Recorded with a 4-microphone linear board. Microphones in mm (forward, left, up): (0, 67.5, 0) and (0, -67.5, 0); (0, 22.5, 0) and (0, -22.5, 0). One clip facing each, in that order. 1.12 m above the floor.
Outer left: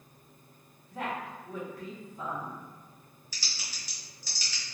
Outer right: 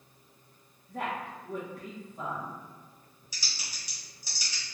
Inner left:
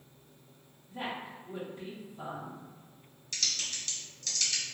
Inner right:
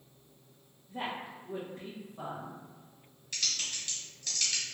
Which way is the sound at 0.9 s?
55° right (ahead or behind).